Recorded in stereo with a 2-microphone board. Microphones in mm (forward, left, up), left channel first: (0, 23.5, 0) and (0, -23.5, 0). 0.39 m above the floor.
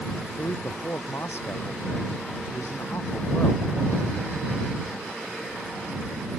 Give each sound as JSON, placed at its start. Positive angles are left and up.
{"t": 0.3, "sound": "a man speaking", "side_deg": 65}